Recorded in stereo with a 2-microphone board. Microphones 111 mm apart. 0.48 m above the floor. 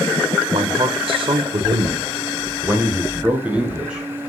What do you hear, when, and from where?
0.5 s a man speaking: 60° right (ahead or behind), 1.5 m; by 4.1 s 5° right (ahead or behind), 2.5 m